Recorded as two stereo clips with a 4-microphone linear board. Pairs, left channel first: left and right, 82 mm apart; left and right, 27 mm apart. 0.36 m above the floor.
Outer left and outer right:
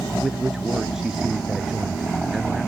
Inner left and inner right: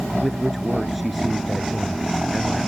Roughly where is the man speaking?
Centre.